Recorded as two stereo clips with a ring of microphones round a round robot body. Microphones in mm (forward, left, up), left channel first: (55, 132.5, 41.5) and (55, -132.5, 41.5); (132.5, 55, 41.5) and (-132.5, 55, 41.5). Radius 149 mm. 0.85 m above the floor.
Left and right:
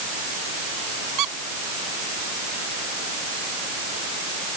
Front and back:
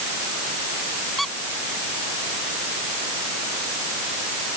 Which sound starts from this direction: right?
A squeak, at 1.2 s.